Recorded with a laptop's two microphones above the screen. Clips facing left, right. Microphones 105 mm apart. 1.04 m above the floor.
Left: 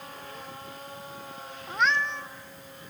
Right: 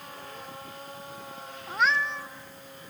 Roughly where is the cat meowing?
Centre.